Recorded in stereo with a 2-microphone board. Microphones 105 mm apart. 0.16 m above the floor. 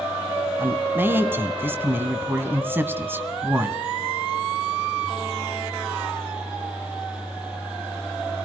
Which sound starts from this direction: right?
A man speaking, at 0.6 s.